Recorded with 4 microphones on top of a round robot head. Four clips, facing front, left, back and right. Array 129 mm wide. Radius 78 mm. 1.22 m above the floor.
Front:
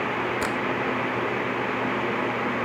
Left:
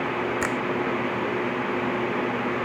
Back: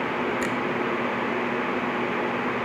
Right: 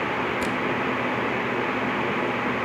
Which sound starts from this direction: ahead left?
A finger snap, at 0.4 s.